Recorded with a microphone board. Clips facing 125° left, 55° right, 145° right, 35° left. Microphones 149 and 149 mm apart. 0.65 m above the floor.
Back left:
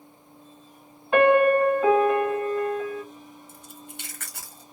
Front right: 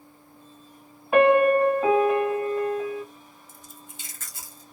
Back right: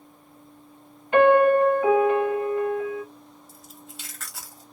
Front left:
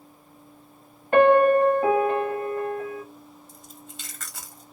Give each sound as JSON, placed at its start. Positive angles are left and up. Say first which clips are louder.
{"t": 1.1, "sound": "a piano", "louder": "even, even", "azimuth_deg": 25, "distance_m": 1.2}
{"t": 3.5, "sound": "chewing", "louder": "back left 4 dB, even", "azimuth_deg": 125, "distance_m": 1.1}